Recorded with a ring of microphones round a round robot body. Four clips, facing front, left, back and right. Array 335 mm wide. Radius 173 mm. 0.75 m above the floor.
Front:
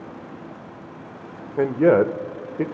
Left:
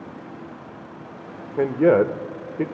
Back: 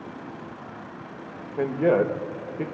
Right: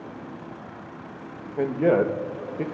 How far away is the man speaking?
About 0.8 m.